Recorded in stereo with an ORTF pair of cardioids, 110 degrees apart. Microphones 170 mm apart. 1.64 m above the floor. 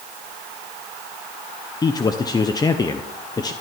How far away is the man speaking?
About 0.8 m.